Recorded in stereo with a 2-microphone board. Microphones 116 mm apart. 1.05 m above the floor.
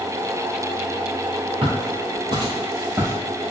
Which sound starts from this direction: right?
Footsteps, at 1.6 s.